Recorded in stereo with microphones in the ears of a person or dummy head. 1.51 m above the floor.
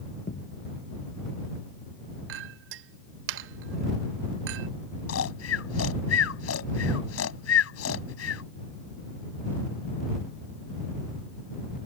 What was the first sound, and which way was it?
A thud, 45° left (ahead or behind).